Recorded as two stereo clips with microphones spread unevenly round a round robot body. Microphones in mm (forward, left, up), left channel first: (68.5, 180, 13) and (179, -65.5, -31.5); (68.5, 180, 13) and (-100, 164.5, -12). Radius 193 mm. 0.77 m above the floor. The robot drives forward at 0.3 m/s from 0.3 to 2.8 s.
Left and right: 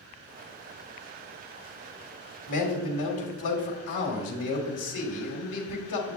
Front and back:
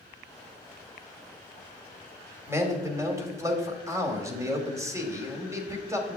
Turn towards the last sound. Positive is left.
turn(degrees=115)